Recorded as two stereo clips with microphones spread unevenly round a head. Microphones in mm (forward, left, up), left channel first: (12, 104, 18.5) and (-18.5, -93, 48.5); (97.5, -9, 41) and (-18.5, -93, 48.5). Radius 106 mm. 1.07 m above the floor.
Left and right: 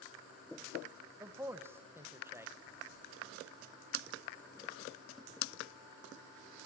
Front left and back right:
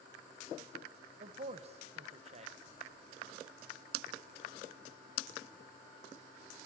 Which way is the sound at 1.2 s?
Straight behind.